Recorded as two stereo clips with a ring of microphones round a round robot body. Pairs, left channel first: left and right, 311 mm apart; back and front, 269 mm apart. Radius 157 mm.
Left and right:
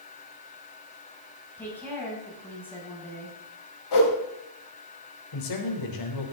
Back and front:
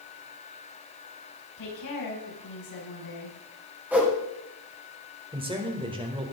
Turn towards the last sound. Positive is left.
turn(degrees=70)